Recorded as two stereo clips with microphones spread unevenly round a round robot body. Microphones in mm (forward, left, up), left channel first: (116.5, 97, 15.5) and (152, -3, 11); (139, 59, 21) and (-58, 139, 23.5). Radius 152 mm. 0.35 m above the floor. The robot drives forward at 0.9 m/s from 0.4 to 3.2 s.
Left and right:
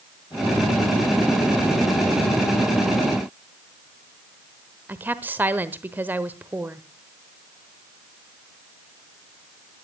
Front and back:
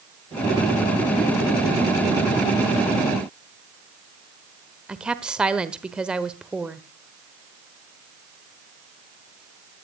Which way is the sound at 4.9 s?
120° right.